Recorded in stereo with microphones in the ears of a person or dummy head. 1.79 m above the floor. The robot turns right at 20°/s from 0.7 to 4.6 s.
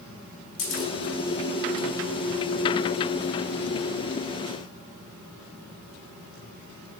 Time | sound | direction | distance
0.6 | a camera shutter | 80° left | 5.5 m